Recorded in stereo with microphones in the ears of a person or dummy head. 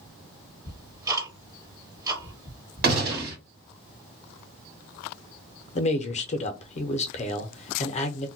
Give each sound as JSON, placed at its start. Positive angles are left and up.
{"t": 0.7, "sound": "ticking", "side_deg": -20, "distance_m": 1.2}
{"t": 2.8, "sound": "a gunshot", "side_deg": -55, "distance_m": 1.2}
{"t": 5.8, "sound": "a man speaking", "side_deg": 35, "distance_m": 0.5}